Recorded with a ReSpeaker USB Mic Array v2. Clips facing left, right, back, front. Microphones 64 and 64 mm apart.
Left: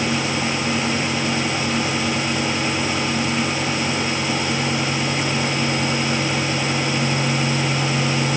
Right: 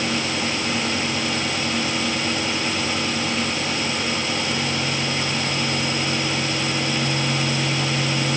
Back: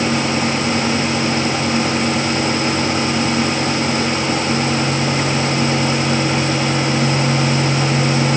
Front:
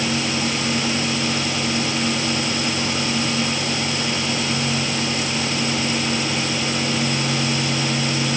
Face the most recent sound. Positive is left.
No sound to turn to.